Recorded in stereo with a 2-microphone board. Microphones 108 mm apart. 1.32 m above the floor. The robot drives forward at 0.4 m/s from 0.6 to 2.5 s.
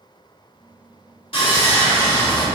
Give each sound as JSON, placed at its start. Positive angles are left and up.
{"t": 1.3, "sound": "sawing", "side_deg": 55, "distance_m": 2.0}